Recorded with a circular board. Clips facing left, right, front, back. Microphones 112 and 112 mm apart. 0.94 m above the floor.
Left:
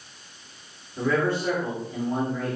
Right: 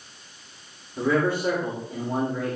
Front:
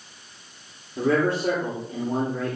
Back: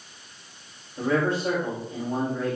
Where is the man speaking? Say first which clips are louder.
Right 1 dB, front 2 dB; 15° right, 3 m.